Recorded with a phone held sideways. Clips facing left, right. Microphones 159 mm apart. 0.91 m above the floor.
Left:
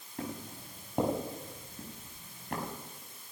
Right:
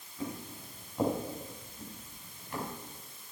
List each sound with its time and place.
0.2 s footsteps: 70° left (ahead or behind), 7.5 m; by 2.6 s 60° left (ahead or behind), 7 m